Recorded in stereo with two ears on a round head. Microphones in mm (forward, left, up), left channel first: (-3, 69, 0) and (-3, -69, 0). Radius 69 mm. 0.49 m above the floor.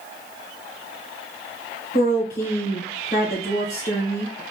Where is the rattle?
No rattle in this recording.